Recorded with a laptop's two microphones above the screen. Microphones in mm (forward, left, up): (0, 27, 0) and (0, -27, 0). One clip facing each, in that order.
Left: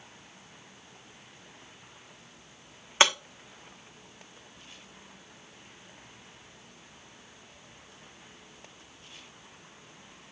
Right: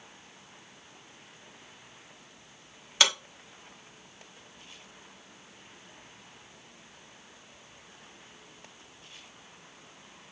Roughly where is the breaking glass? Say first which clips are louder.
Left 3 dB; left.